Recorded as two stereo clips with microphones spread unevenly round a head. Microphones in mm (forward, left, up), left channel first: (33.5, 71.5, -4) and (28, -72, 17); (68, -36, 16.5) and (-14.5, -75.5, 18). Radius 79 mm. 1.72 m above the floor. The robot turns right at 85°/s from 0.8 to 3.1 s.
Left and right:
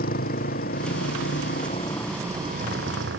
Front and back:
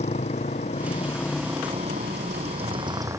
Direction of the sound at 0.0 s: 65° left.